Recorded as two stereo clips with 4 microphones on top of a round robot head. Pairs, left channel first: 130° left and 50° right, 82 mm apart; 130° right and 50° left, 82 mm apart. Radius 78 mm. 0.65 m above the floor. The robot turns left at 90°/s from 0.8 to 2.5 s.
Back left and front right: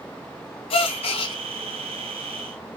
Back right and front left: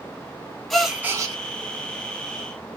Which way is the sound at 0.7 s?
145° left.